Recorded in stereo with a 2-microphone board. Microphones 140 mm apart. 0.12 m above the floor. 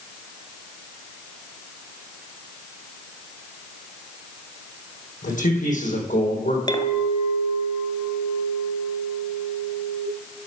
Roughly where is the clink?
Left.